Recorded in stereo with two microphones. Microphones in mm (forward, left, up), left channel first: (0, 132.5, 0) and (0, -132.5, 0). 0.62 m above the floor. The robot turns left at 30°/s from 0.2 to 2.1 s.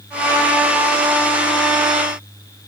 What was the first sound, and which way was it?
Only background noise.